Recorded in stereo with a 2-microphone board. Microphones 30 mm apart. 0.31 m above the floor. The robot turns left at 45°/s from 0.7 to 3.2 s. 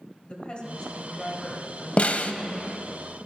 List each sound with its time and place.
0.3 s a woman speaking: 55° left, 1.8 m; by 3.0 s 50° right, 1.8 m
2.0 s a snare drum: 45° left (ahead or behind), 0.5 m; by 2.3 s 55° left (ahead or behind), 0.5 m